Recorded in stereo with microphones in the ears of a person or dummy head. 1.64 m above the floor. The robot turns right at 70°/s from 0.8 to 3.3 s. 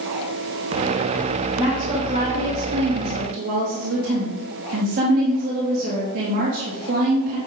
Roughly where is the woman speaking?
Behind.